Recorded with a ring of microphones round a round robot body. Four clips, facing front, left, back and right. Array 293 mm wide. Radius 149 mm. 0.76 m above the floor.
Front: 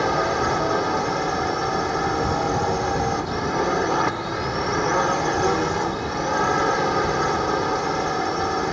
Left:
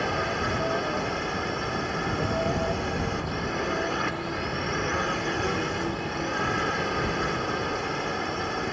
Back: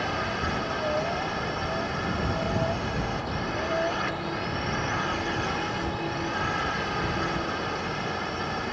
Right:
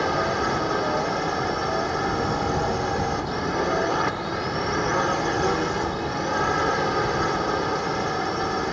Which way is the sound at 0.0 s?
30° right.